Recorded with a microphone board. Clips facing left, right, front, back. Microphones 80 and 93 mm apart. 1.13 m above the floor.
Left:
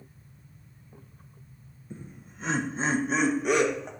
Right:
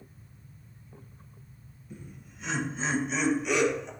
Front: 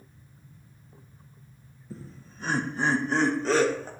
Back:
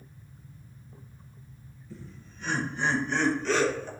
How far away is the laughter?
About 0.9 m.